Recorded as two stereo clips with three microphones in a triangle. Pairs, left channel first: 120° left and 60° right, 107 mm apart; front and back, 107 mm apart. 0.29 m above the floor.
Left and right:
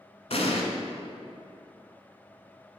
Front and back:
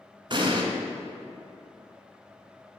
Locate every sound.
0.3 s an explosion: 140° left, 1.1 m